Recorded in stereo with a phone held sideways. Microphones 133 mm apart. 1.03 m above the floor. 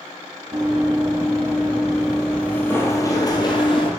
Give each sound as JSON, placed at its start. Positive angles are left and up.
{"t": 0.5, "sound": "running footsteps", "side_deg": -35, "distance_m": 1.9}